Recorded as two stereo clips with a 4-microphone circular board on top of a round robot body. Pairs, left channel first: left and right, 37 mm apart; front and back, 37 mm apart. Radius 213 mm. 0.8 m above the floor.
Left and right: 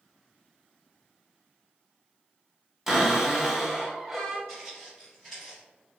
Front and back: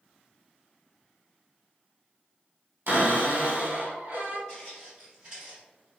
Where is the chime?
No chime in this recording.